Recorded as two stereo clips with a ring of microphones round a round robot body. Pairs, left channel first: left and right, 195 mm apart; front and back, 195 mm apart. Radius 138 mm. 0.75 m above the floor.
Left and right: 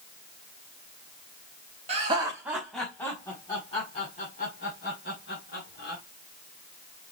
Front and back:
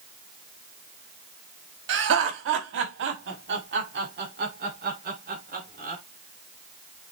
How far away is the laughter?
About 1.1 m.